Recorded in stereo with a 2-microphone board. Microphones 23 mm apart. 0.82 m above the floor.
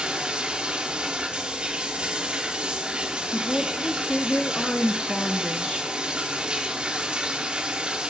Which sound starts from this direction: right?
Running water, at 0.0 s.